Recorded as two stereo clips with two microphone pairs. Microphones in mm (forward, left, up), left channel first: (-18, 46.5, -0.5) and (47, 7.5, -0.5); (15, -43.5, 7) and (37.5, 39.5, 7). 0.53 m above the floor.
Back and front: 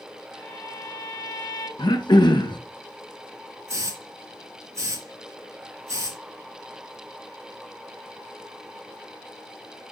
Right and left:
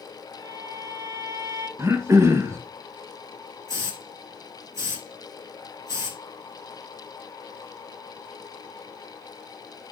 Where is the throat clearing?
135° left, 1.6 m.